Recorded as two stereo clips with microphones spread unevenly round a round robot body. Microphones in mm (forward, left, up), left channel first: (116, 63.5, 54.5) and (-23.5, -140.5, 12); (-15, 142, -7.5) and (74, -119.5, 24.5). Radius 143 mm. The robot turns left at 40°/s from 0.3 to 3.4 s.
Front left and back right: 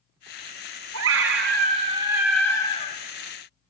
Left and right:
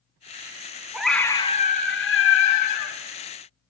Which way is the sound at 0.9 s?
160° right.